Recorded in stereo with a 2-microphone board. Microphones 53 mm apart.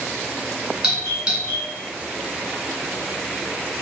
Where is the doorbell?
15° right (ahead or behind), 1.5 m.